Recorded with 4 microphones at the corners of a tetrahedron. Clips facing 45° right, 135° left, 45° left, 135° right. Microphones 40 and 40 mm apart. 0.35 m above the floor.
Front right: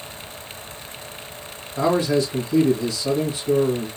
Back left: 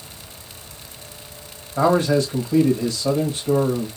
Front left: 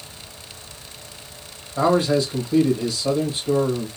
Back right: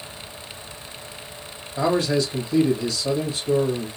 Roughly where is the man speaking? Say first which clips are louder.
Back left 2 dB, front left 3 dB; left.